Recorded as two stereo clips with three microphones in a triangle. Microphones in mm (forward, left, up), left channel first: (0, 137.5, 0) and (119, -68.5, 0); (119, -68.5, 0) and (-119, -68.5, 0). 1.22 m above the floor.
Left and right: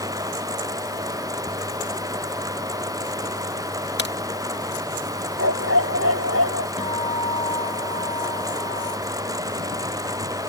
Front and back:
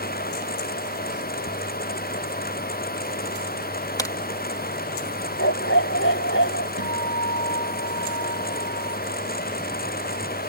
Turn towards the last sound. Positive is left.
turn(degrees=-175)